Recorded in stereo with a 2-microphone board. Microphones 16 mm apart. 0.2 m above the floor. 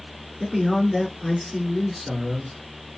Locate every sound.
0.4 s a man speaking: centre (ahead or behind), 3 m